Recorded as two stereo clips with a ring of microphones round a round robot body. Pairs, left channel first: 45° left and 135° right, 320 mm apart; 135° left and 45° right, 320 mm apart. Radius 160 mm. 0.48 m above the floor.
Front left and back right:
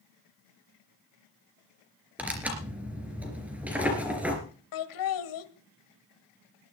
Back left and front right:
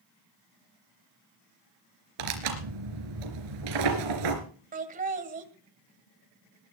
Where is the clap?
I don't hear a clap.